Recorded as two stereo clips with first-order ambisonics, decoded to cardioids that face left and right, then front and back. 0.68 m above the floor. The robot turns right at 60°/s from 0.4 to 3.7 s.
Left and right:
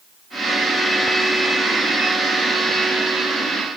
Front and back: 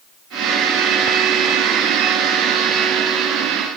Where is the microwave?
I don't hear a microwave.